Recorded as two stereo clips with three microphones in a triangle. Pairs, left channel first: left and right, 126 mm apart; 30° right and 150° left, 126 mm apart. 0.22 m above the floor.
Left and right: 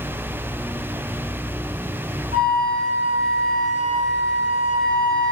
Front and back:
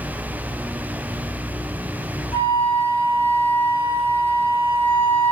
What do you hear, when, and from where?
2.3 s a flute: 90° right, 4.5 m